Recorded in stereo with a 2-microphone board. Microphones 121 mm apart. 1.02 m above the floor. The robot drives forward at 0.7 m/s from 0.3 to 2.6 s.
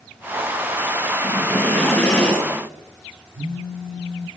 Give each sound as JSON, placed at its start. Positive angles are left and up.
{"t": 1.2, "sound": "breathing", "side_deg": 15, "distance_m": 4.0}
{"t": 3.4, "sound": "a phone buzzing", "side_deg": -70, "distance_m": 0.8}